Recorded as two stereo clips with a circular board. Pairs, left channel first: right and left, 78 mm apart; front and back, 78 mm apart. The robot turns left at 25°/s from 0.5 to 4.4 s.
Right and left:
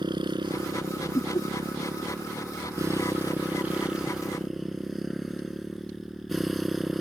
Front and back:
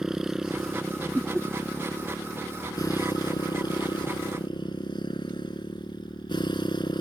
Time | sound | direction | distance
0.0 | a motorcycle | 95° left | ?
1.1 | laughter | 95° right | ?